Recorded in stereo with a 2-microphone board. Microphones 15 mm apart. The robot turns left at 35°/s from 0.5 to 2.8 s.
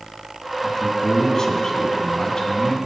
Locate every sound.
0.6 s a man speaking: 150° left, 1.7 m; by 2.8 s 75° left, 1.7 m